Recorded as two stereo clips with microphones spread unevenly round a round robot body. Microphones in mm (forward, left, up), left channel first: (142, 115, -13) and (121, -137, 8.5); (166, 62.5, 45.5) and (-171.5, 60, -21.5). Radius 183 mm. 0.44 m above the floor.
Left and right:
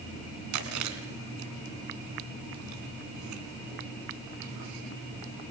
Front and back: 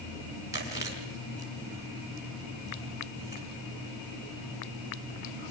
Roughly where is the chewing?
Right.